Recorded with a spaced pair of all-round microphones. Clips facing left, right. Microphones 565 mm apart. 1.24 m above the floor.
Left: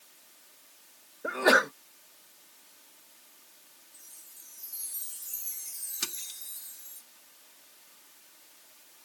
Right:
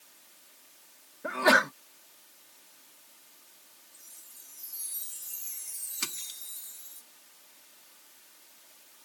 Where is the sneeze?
25° right (ahead or behind).